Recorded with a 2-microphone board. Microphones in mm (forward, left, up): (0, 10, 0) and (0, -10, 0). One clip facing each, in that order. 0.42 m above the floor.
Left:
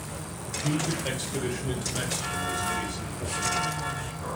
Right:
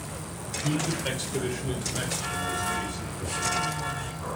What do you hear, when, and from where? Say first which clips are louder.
0.5 s a man speaking: even; 30° right (ahead or behind), 1.5 m; by 3.4 s 45° left (ahead or behind), 1.3 m